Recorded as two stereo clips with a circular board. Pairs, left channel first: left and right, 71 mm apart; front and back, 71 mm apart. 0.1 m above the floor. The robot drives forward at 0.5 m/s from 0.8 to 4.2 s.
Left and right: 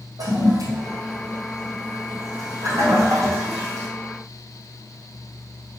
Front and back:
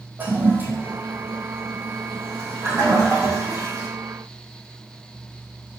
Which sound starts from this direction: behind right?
A toilet flushing, at 0.2 s.